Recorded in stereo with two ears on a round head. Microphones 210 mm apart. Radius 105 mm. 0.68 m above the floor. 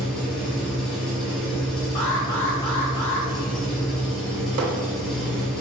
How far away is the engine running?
About 1.6 m.